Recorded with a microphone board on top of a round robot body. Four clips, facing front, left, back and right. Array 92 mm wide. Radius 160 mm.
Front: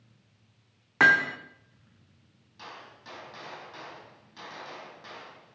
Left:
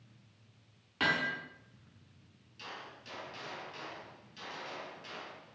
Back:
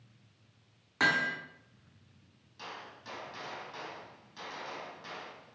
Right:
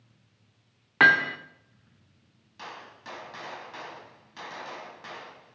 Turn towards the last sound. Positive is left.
turn(degrees=-95)